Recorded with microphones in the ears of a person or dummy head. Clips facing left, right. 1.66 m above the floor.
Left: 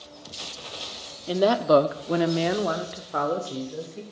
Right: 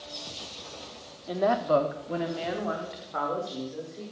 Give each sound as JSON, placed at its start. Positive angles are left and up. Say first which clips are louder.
{"t": 1.3, "sound": "a woman speaking", "louder": "left 5 dB", "side_deg": 40, "distance_m": 0.6}